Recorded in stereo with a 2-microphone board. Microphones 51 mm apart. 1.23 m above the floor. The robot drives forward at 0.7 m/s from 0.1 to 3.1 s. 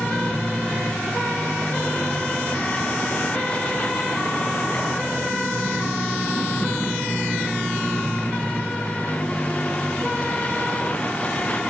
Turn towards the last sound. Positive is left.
turn(degrees=25)  # may be behind; listen again after turning